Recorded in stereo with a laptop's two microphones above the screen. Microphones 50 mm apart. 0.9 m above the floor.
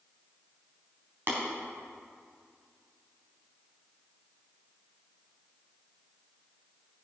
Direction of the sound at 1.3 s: 50° right (ahead or behind).